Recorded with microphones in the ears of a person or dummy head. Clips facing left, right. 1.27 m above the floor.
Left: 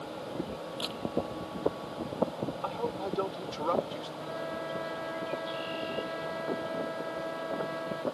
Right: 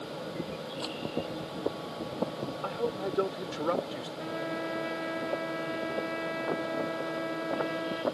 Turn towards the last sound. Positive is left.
turn(degrees=-45)  # may be behind; listen again after turning